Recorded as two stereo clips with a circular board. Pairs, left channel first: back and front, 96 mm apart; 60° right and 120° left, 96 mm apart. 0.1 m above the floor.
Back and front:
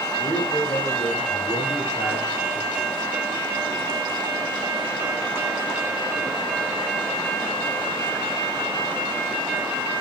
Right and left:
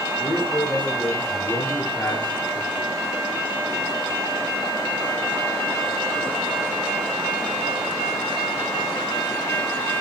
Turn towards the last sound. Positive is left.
turn(degrees=-135)